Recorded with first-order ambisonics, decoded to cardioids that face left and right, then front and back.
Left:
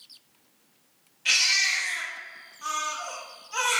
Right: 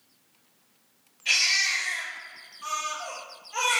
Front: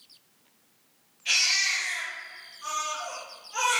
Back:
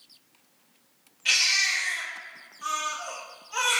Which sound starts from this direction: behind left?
A baby crying, at 1.2 s.